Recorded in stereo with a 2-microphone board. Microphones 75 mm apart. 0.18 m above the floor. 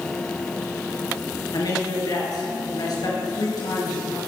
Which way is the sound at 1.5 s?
65° left (ahead or behind).